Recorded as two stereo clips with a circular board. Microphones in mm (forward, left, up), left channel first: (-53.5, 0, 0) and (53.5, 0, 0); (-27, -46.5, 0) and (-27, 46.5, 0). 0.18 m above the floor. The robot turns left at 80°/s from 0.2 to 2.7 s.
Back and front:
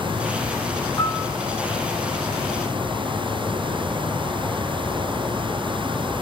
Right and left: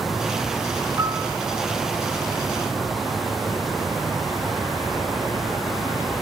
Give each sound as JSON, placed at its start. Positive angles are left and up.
{"t": 1.0, "sound": "a piano", "azimuth_deg": 135, "distance_m": 2.0}